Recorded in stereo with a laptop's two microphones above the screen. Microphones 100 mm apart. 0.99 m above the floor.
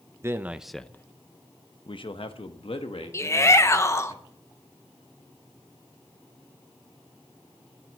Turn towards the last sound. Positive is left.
turn(degrees=30)  # may be behind; listen again after turning